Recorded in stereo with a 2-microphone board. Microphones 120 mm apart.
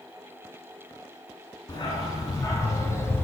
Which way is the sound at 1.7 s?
35° left (ahead or behind).